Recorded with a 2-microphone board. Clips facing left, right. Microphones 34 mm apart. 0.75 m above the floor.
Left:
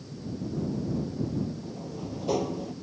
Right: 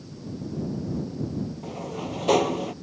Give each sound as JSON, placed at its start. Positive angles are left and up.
{"t": 1.6, "sound": "a sliding door", "side_deg": -70}